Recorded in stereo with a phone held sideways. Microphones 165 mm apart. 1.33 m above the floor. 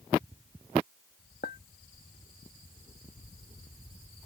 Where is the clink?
75° left (ahead or behind).